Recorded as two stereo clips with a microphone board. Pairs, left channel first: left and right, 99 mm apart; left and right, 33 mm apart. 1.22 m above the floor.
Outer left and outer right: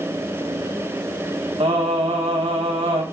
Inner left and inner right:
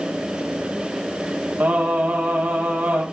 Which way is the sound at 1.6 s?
80° right.